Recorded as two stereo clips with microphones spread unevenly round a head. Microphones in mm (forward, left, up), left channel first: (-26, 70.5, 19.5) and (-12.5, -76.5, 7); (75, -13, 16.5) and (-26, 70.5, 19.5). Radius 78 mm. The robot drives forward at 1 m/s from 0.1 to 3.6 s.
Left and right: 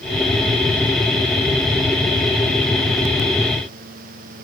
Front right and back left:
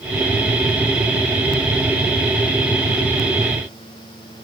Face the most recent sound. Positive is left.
No sound to turn to.